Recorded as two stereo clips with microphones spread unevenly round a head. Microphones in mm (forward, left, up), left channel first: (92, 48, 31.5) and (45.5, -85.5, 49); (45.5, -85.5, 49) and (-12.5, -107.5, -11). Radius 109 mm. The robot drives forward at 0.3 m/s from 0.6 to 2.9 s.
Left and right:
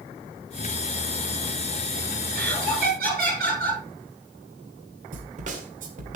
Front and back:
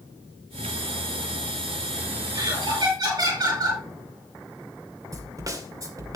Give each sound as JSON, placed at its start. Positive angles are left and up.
{"t": 2.3, "sound": "laughter", "azimuth_deg": -155, "distance_m": 7.0}
{"t": 5.1, "sound": "a snare drum", "azimuth_deg": -100, "distance_m": 2.5}